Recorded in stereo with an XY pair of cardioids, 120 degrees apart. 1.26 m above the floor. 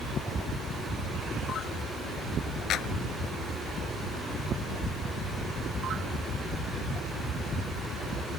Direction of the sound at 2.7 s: 65° left.